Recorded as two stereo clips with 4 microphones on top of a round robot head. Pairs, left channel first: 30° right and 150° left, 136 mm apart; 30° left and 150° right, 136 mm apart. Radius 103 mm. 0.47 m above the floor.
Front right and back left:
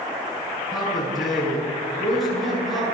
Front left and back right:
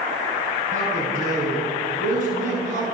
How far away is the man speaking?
About 9.5 m.